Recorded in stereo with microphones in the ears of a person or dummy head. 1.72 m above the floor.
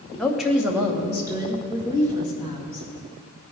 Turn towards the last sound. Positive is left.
turn(degrees=-30)  # may be behind; listen again after turning